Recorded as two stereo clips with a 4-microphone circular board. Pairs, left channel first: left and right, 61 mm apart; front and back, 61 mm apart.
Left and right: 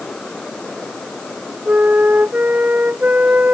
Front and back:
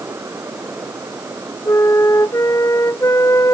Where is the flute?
30° right.